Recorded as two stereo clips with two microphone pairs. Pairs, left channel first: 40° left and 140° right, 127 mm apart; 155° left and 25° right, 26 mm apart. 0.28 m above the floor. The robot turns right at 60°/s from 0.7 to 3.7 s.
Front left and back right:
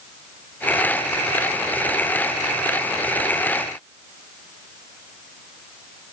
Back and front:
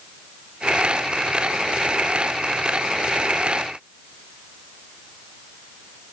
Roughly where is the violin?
No violin in this recording.